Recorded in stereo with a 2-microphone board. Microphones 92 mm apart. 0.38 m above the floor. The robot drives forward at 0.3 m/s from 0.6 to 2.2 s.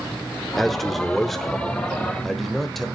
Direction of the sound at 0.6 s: Centre (ahead or behind).